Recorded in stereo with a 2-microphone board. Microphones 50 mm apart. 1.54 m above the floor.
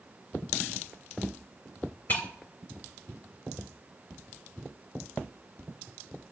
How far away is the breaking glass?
About 2.5 m.